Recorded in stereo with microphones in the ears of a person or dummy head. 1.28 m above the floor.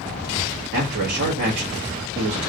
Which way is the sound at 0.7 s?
65° right (ahead or behind).